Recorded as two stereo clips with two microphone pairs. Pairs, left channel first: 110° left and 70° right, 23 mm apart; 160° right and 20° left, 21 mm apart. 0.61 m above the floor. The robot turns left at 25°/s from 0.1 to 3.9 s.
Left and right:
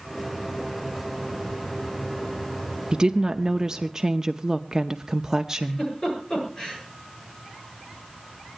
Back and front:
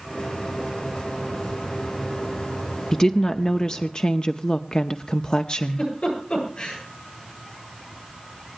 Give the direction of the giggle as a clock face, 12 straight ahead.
6 o'clock.